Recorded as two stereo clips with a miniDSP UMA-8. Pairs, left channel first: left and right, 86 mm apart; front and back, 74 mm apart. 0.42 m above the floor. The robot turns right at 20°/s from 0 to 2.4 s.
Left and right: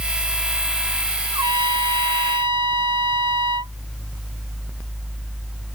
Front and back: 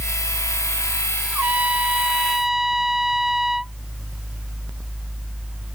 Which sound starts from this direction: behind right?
A trumpet, at 1.3 s.